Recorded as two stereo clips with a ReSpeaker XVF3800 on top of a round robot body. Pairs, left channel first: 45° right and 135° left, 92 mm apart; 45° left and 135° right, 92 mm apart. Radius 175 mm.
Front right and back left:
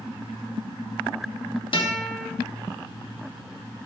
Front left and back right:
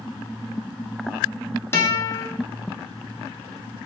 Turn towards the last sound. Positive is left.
turn(degrees=-20)